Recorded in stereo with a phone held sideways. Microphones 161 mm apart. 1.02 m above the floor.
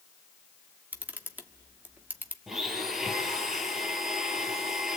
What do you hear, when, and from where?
0.9 s a camera shutter: 10° right (ahead or behind), 1.5 m
2.5 s a blender: centre (ahead or behind), 3.5 m